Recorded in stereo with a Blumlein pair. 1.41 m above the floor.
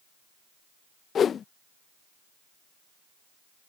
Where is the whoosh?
25° left.